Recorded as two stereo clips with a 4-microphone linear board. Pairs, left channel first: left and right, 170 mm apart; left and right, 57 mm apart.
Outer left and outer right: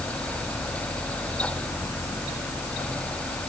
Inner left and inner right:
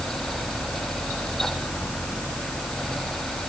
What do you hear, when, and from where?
Only background noise.